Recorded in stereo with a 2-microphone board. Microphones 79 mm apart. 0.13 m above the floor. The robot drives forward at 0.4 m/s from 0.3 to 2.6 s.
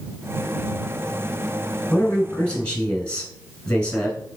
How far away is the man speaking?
About 1.0 m.